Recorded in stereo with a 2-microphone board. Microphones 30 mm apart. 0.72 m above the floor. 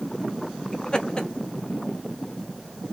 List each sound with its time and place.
0.7 s laughter: 25° left (ahead or behind), 0.9 m